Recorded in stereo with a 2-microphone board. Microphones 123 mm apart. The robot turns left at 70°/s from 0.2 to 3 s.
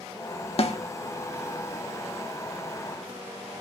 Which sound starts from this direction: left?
A snare drum, at 0.6 s.